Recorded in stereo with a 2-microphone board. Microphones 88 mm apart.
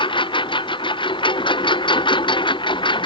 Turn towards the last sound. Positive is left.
turn(degrees=65)  # may be behind; listen again after turning